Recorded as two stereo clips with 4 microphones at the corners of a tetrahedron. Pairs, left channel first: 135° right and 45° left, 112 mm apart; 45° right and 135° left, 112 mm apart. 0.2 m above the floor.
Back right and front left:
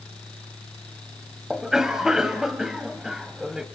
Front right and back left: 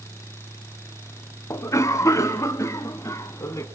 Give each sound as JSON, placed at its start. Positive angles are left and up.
{"t": 1.5, "sound": "a cough", "azimuth_deg": -35, "distance_m": 1.0}